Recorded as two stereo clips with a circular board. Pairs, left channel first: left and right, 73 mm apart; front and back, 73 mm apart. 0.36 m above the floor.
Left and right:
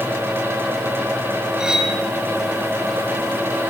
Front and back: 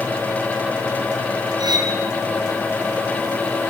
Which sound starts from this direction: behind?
Cutlery clinking, at 1.6 s.